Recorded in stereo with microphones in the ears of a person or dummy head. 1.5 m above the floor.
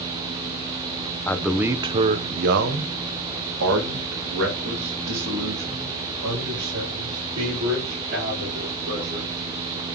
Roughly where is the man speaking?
Centre.